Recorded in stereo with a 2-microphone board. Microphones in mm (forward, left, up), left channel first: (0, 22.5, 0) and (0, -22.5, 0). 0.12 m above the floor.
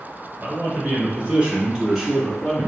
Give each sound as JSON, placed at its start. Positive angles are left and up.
{"t": 0.4, "sound": "a man speaking", "side_deg": -40, "distance_m": 1.6}